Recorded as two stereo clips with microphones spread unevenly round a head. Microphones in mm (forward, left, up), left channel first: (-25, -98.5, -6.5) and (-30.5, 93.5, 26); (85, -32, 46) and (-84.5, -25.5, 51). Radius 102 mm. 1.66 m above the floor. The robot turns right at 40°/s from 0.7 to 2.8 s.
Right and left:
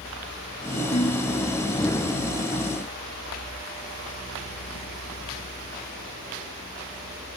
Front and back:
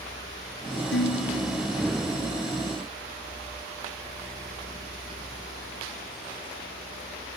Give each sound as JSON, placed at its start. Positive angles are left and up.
{"t": 0.9, "sound": "dishes clattering", "azimuth_deg": -25}